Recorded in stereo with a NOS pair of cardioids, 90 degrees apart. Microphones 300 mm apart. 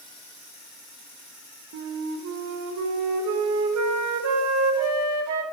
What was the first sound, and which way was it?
A flute, 65° right.